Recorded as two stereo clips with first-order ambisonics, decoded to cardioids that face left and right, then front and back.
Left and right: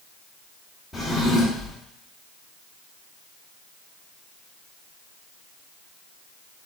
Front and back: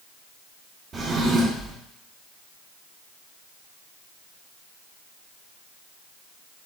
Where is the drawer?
170° left, 1.0 m.